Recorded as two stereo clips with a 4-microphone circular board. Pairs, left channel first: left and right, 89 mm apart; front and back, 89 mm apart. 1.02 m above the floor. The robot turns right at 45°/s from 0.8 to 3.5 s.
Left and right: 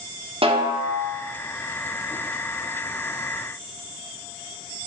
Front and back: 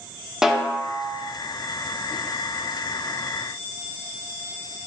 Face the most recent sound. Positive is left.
turn(degrees=25)